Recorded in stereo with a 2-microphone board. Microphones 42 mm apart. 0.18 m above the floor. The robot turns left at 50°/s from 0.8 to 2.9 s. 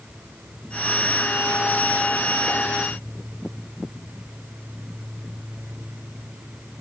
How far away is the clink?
No clink in this recording.